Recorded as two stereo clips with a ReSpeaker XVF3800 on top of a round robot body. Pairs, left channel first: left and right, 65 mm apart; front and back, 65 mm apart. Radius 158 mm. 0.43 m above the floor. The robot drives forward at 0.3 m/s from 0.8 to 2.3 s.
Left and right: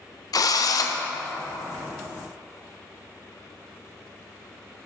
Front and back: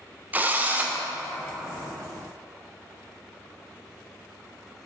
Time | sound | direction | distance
0.3 | a drill | 115° left | 0.7 m